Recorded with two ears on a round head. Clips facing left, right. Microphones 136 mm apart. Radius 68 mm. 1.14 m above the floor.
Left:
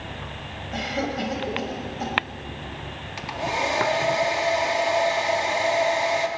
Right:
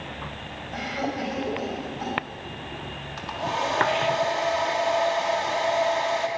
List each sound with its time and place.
0.7 s a cough: 35° left (ahead or behind), 5 m
3.2 s a hair dryer: 15° left (ahead or behind), 1.7 m